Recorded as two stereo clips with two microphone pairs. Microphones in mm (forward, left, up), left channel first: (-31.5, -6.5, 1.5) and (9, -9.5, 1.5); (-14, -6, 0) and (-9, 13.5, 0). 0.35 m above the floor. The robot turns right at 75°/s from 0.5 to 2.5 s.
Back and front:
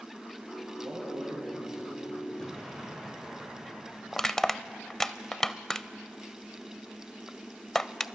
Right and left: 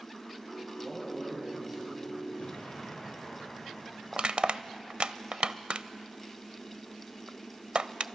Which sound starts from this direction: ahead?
A man speaking, at 0.8 s.